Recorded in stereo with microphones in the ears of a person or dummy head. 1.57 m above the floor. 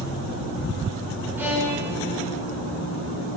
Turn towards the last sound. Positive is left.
turn(degrees=-15)  # may be behind; listen again after turning